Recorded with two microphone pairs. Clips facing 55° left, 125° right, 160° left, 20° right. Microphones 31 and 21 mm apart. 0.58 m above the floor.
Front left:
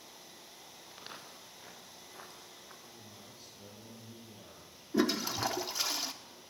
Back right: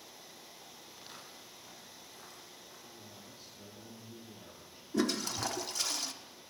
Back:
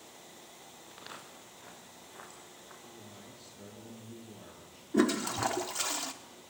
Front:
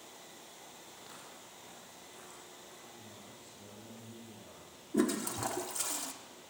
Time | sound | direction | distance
0.9 | footsteps | 115° left | 4.5 m
2.8 | a man speaking | 155° left | 9.5 m
4.9 | a toilet flushing | 120° left | 1.1 m